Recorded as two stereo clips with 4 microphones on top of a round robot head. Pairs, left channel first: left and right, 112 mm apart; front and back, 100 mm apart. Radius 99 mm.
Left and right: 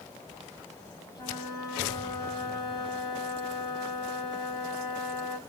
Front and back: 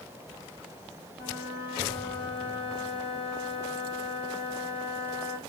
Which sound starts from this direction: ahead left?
A flute, at 1.1 s.